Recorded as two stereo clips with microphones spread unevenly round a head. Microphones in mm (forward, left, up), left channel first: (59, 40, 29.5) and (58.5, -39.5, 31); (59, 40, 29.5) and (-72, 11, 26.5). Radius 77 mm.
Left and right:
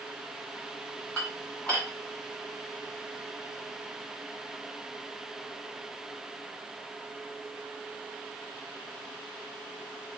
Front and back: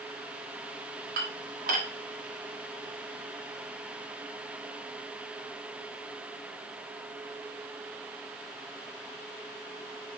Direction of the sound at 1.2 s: 170° left.